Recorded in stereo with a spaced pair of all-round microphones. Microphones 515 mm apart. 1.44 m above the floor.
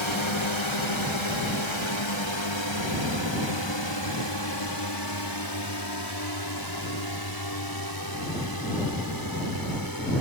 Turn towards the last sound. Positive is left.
turn(degrees=40)  # may be behind; listen again after turning